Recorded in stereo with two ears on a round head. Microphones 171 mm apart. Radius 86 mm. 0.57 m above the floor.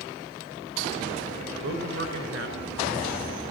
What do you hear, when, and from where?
1.6 s a man speaking: 60° right (ahead or behind), 5.5 m